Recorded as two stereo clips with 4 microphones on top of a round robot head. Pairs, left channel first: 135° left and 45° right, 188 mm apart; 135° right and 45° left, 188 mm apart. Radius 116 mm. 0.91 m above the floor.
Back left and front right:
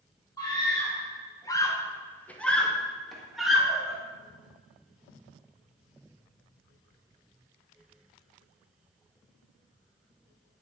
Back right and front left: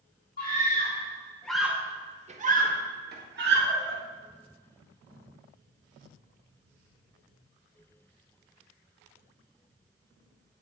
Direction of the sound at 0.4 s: 155° right.